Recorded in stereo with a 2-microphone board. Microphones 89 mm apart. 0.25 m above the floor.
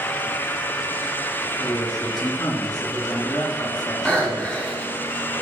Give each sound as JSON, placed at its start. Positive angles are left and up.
{"t": 1.6, "sound": "a man speaking", "side_deg": 55, "distance_m": 2.5}
{"t": 4.0, "sound": "breathing", "side_deg": 10, "distance_m": 2.0}